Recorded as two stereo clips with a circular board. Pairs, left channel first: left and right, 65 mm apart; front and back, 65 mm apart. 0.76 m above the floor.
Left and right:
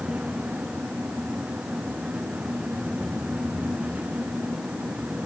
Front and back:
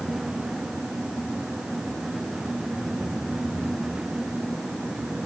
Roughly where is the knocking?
No knocking in this recording.